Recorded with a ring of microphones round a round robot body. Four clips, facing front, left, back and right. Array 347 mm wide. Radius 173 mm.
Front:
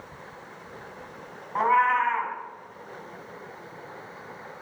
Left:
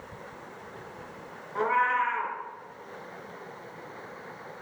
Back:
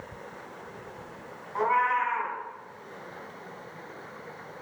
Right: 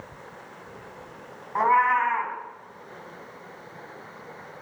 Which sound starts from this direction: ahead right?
A cat meowing, at 1.6 s.